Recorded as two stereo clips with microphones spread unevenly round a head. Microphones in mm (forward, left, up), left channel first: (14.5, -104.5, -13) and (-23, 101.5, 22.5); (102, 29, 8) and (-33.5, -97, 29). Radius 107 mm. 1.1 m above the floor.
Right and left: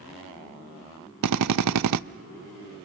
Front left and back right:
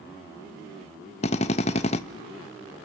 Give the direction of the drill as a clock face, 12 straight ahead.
8 o'clock.